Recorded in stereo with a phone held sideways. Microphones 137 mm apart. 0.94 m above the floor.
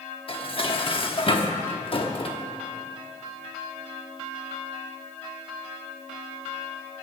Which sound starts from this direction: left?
Dishes clattering, at 0.3 s.